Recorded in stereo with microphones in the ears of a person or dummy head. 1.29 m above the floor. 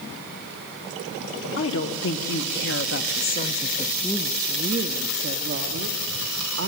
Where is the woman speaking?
70° left (ahead or behind), 1.9 m; by 6.7 s 70° right (ahead or behind), 1.9 m.